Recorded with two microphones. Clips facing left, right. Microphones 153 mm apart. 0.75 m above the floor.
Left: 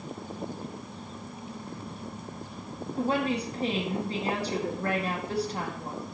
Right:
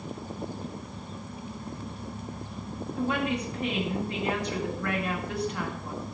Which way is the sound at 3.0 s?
30° left (ahead or behind).